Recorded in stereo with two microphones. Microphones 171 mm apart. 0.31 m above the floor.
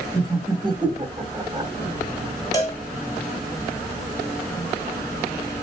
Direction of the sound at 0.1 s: 25° right (ahead or behind).